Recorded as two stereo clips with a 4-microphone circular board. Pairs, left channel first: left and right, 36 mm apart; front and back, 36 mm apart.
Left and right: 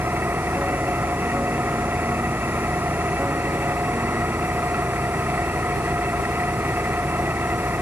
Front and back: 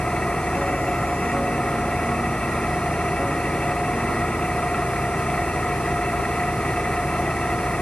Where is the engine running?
65° right.